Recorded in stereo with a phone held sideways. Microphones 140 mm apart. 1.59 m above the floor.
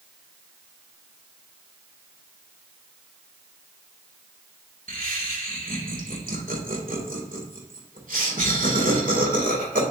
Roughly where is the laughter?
Right.